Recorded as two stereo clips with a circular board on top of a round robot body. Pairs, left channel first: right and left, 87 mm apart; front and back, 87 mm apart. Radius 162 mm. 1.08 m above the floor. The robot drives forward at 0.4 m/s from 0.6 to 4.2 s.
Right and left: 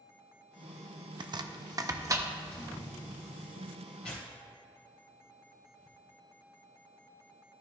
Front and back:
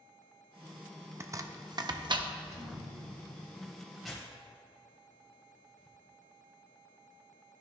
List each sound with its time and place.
1.2 s chopping: 120° left, 0.6 m; by 2.3 s 150° left, 0.9 m
2.5 s a thud: 165° right, 2.5 m; by 3.5 s 170° right, 2.5 m
4.0 s tearing paper: 90° right, 1.0 m; by 6.0 s 95° right, 1.0 m